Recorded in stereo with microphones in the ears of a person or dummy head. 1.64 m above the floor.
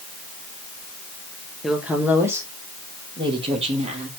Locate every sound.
1.6 s a woman speaking: centre (ahead or behind), 1.9 m; by 4.1 s 35° right (ahead or behind), 2.5 m